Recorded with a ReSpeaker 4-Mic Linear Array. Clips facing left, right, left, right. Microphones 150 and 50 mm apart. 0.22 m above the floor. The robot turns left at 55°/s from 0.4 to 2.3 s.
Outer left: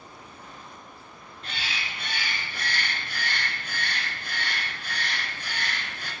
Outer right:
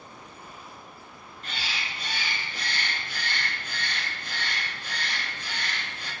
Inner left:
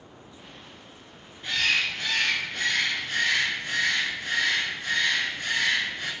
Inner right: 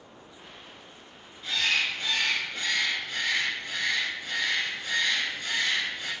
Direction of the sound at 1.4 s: 135° left.